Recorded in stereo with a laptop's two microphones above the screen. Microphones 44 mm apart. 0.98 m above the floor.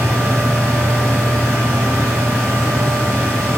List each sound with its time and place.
0.0 s a fan: 80° right, 0.9 m